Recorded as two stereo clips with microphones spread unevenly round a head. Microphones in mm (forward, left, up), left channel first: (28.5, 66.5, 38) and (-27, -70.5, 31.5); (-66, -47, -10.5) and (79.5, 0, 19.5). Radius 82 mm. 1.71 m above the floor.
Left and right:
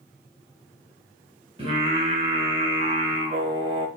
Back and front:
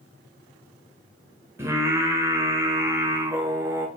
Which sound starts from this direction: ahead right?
Singing, at 1.6 s.